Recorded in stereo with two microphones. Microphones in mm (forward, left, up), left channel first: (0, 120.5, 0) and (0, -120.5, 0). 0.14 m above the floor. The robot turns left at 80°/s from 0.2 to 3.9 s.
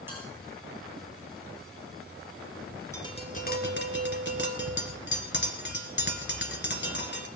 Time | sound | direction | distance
0.1 | a bell | 10° right (ahead or behind) | 5.5 m
2.9 | tapping | 165° left | 1.8 m